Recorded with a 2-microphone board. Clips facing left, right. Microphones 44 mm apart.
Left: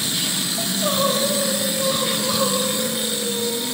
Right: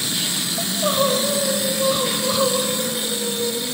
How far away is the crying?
About 3.5 m.